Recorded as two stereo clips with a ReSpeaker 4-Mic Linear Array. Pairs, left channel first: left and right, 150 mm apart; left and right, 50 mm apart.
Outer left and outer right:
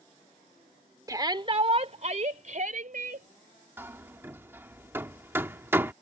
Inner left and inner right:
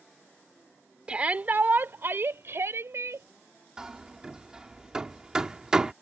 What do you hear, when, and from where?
1.1 s a shout: 25° right (ahead or behind); by 3.3 s 65° right (ahead or behind)
3.8 s hammering: 15° right (ahead or behind)